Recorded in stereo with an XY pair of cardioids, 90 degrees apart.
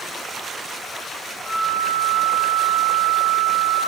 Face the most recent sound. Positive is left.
turn(degrees=45)